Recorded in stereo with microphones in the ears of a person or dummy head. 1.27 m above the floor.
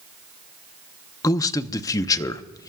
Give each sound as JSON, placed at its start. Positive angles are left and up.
{"t": 1.2, "sound": "a man speaking", "side_deg": 20, "distance_m": 0.7}